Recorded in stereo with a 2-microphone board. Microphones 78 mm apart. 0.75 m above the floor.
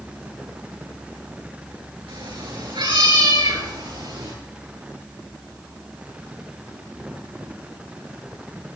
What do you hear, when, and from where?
2.1 s a cat meowing: 85° right, 7.5 m